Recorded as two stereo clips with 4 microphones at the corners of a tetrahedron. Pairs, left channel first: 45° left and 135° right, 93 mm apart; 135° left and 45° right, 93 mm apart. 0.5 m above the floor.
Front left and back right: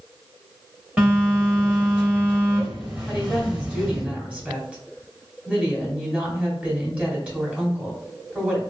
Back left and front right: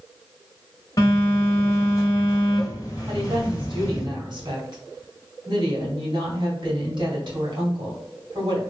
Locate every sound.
1.0 s a phone buzzing: 155° left, 1.3 m
3.1 s a woman speaking: 60° right, 1.9 m